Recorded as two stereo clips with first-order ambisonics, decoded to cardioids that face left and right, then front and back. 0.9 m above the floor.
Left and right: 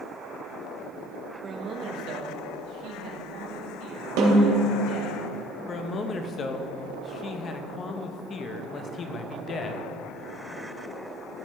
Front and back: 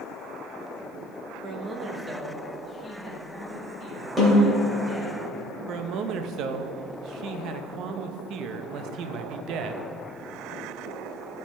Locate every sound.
1.4 s a man speaking: 140° right, 1.0 m; by 5.2 s 65° right, 3 m
4.2 s a snare drum: 95° right, 3 m
5.7 s a man speaking: 145° left, 0.6 m